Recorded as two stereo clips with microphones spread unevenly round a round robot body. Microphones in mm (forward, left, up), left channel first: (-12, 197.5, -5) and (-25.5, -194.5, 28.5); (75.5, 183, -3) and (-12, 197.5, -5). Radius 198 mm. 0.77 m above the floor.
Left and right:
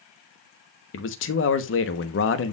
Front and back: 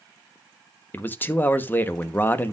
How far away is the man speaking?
About 1.0 m.